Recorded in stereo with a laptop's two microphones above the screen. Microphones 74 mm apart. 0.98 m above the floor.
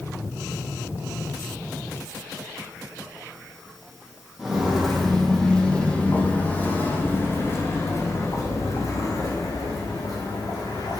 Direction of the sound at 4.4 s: 10° right (ahead or behind).